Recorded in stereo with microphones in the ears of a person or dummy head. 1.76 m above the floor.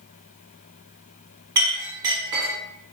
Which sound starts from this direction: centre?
A clink, at 1.6 s.